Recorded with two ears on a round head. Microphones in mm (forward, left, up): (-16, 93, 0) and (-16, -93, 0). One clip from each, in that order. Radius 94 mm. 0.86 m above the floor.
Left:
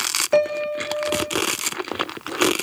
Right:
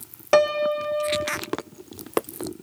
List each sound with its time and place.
0.3 s a piano: 35° right (ahead or behind), 1.5 m